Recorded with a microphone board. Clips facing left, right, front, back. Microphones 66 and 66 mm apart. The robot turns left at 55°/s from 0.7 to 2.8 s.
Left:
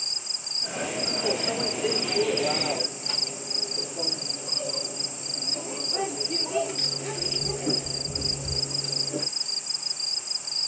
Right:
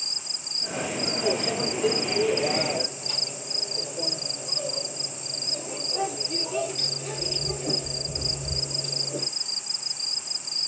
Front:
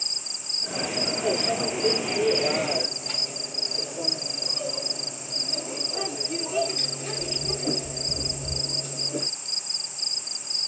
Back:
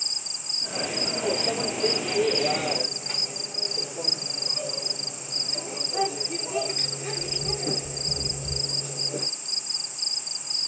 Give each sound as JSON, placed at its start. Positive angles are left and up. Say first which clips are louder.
{"t": 1.2, "sound": "a microwave", "louder": "right 2 dB, front 1 dB", "azimuth_deg": -160, "distance_m": 2.0}